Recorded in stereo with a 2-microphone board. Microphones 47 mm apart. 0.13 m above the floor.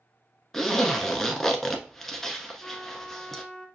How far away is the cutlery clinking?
I don't hear cutlery clinking.